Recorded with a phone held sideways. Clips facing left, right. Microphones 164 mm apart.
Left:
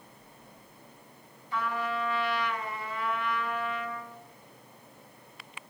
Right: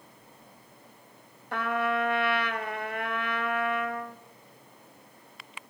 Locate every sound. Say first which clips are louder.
1.5 s a trumpet: right 4 dB; 65° right (ahead or behind), 0.7 m